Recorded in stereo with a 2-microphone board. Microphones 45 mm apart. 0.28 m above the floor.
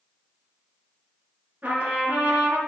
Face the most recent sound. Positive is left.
turn(degrees=-35)  # may be behind; listen again after turning